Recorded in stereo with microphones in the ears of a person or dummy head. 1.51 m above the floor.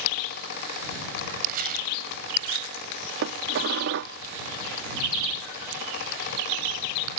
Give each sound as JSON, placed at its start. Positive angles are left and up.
{"t": 1.4, "sound": "crumpling", "side_deg": -50}
{"t": 3.2, "sound": "dishes clattering", "side_deg": -60}